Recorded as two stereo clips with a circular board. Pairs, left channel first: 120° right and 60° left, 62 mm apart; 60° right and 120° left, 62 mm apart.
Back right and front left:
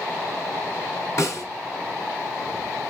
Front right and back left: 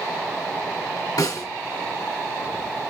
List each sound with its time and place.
1.2 s a snare drum: 75° right, 2.5 m